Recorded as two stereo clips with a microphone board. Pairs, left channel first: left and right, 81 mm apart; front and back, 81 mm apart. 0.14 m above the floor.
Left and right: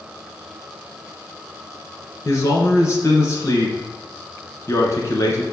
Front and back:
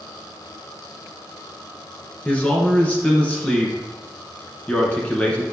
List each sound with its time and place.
2.2 s a man speaking: 65° left, 1.5 m